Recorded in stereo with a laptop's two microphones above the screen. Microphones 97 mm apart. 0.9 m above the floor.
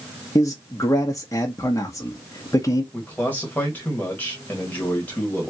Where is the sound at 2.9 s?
20° left (ahead or behind), 1.3 m.